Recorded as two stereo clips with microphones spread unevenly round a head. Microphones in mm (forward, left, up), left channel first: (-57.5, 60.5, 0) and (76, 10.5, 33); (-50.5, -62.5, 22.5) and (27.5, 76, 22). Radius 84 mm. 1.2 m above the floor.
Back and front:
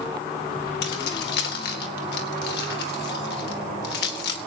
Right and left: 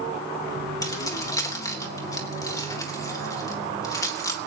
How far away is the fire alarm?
No fire alarm in this recording.